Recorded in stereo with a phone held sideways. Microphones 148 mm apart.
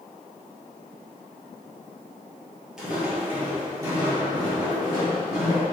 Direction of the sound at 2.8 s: 5° right (ahead or behind).